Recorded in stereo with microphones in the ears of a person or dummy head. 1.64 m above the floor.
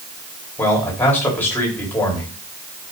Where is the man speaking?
15° left (ahead or behind), 4 m.